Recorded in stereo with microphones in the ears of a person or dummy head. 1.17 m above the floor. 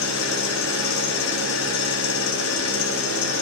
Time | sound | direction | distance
0.0 | an engine running | 75° left (ahead or behind) | 1.9 m